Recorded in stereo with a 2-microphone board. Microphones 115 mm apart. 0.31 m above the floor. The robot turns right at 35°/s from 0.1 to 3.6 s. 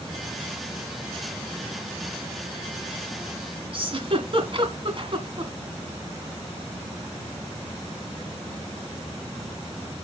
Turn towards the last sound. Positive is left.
turn(degrees=-50)  # may be behind; listen again after turning